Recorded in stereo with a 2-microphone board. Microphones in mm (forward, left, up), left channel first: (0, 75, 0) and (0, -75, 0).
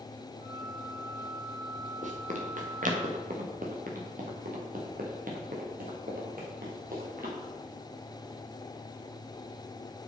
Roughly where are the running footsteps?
Right.